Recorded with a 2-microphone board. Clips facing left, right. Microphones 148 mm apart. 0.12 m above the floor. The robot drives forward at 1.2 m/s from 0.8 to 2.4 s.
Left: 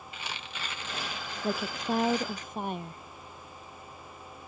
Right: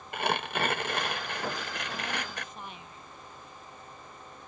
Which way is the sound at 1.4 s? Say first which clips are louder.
Left 11 dB; 65° left (ahead or behind).